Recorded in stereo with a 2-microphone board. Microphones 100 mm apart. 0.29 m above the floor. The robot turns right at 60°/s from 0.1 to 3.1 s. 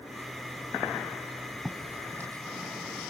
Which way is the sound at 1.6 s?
Centre (ahead or behind).